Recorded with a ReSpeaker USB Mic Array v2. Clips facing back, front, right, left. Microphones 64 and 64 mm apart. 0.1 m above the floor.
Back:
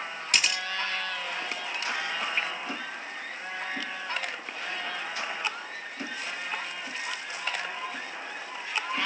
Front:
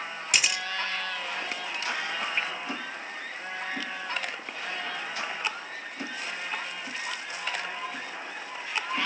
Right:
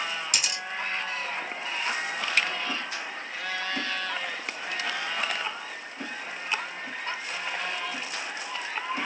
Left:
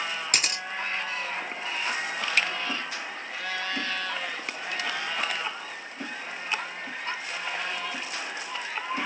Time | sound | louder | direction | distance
0.3 | a camera shutter | even, left 2 dB | 85° left | 1.1 m